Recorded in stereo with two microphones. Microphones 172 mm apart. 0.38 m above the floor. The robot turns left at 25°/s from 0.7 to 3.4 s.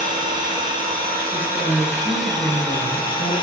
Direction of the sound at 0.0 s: 140° right.